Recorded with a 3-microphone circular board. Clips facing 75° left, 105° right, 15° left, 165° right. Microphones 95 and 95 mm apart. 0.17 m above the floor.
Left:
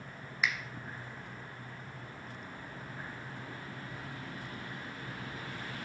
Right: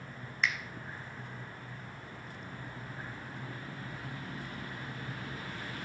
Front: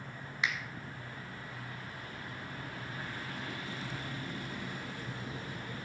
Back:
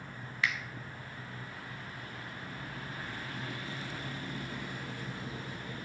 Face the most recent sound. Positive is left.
turn(degrees=10)